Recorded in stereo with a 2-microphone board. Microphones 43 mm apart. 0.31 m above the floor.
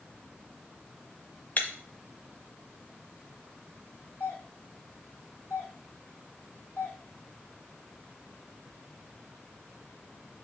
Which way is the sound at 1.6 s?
40° left (ahead or behind).